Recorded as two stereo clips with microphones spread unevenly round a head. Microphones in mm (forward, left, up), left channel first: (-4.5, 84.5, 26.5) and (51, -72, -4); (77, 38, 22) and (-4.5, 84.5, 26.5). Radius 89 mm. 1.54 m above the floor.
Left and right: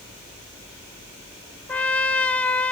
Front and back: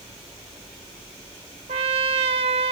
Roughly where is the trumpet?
Behind.